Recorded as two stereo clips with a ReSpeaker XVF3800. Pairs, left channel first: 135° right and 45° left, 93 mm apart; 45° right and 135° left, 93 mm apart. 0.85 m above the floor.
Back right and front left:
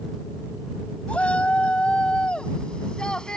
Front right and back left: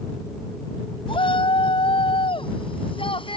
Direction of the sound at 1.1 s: 60° right.